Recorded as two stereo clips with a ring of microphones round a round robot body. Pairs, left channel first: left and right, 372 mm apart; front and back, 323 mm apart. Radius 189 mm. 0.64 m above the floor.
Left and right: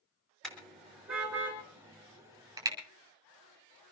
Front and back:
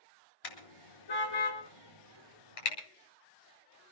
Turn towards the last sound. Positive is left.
turn(degrees=-10)